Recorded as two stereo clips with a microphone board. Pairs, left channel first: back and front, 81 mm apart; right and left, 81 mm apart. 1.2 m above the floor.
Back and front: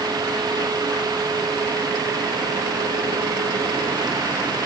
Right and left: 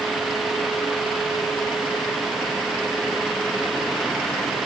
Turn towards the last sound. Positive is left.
No sound to turn to.